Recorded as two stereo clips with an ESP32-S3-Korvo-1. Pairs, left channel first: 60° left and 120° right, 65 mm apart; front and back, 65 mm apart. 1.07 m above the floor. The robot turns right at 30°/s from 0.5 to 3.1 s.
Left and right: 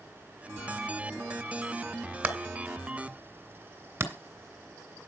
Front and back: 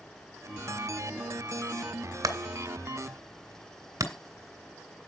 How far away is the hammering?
About 2.5 m.